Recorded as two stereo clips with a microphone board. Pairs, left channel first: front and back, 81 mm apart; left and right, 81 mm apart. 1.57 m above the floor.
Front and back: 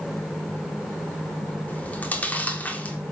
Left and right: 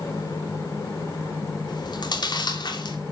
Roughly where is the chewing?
Left.